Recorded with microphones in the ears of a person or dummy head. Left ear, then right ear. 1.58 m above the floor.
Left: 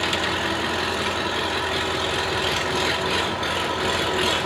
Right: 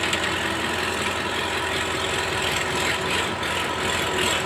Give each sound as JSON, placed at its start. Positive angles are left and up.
{"t": 0.0, "sound": "an engine running", "side_deg": 5, "distance_m": 1.0}